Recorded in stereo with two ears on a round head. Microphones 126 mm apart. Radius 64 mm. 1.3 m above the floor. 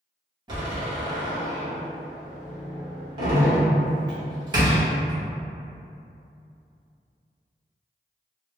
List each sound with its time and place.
0.5 s a door slam: 35° right (ahead or behind), 1.2 m